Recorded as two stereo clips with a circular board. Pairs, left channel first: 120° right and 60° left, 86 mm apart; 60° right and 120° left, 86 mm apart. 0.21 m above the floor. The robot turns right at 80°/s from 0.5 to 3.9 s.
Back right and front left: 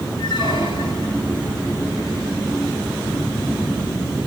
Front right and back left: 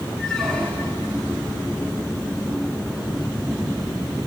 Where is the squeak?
140° right, 6.5 m; by 1.2 s 90° right, 6.5 m.